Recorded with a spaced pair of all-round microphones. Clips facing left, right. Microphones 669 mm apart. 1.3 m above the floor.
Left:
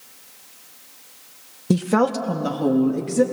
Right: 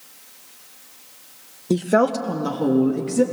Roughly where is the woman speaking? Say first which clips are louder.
Even; left.